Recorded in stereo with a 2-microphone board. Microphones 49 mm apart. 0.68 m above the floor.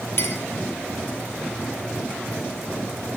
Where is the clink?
60° left (ahead or behind), 1.9 m.